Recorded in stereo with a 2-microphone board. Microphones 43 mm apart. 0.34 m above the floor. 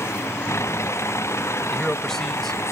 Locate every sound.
0.0 s a vehicle: 90° left; by 2.7 s 80° left
1.7 s a man speaking: 10° left (ahead or behind)